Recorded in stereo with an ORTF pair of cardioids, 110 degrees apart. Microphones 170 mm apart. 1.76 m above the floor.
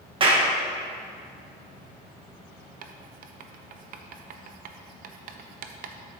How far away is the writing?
About 0.7 m.